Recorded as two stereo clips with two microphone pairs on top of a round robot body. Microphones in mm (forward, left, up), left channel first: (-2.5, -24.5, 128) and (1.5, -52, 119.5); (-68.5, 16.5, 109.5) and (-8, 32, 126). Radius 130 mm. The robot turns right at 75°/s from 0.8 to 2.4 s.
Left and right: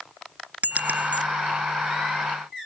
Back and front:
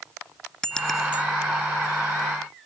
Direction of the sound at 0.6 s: 85° right.